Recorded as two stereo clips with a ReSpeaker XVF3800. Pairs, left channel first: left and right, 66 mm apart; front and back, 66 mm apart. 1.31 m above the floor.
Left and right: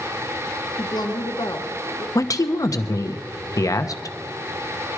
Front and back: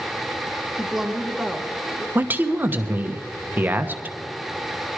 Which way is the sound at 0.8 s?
100° left.